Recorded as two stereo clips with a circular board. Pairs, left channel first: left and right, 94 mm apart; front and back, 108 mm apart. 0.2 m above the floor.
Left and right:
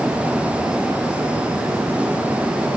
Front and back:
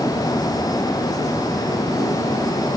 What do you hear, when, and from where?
Only background noise.